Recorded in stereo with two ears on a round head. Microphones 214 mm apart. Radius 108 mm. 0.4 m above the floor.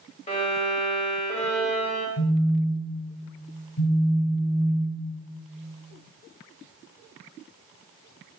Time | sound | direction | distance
0.3 | a violin | 30° left (ahead or behind) | 1.1 m
2.2 | a phone buzzing | 40° left (ahead or behind) | 0.6 m